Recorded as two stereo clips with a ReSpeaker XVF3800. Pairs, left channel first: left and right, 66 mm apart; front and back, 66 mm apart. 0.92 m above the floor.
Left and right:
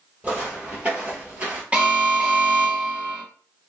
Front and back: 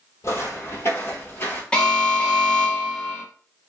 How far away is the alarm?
About 0.9 m.